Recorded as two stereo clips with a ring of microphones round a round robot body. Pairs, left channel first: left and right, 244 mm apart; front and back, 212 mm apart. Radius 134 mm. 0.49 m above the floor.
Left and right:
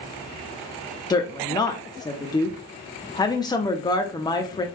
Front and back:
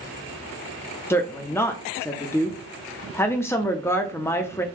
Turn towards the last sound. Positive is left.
turn(degrees=55)